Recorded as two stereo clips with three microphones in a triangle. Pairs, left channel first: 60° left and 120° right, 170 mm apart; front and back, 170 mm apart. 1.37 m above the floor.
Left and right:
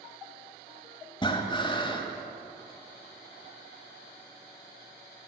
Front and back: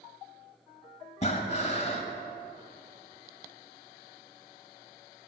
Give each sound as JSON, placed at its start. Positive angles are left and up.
{"t": 1.2, "sound": "breathing", "azimuth_deg": 15, "distance_m": 1.4}